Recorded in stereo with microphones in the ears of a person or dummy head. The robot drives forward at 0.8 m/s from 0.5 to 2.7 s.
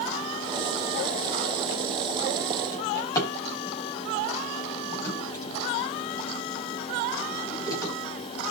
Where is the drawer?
20° left (ahead or behind), 5.5 m.